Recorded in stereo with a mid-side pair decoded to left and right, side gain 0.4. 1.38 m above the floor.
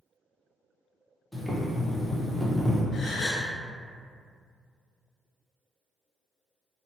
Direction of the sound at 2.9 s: 60° left.